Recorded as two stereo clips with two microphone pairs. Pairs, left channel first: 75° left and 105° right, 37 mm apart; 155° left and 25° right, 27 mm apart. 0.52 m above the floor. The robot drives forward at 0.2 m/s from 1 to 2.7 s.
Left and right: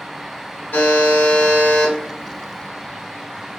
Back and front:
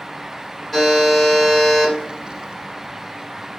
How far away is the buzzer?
About 1.1 m.